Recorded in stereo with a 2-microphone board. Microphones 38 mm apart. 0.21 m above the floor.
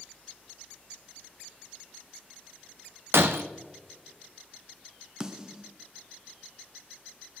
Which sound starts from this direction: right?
Breaking glass, at 3.1 s.